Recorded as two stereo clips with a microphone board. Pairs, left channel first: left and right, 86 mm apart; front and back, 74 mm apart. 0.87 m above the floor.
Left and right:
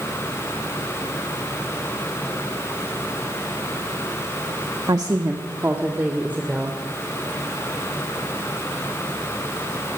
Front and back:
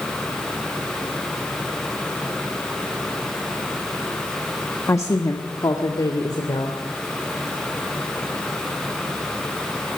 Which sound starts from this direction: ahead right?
A woman speaking, at 4.9 s.